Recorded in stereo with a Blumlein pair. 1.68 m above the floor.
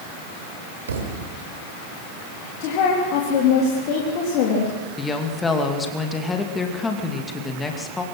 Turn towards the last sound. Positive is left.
turn(degrees=15)